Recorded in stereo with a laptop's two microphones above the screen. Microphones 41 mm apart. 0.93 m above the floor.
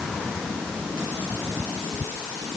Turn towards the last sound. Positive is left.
No sound to turn to.